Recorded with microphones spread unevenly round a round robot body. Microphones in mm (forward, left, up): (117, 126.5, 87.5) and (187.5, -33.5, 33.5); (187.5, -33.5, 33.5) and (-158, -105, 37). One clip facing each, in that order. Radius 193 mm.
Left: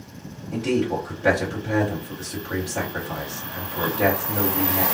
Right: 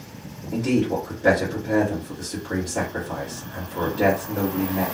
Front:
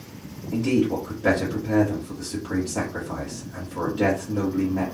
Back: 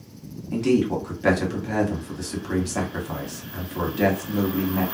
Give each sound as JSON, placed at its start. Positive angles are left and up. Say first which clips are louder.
{"t": 0.5, "sound": "a man speaking", "louder": "right 1 dB, back 1 dB", "azimuth_deg": -130, "distance_m": 1.4}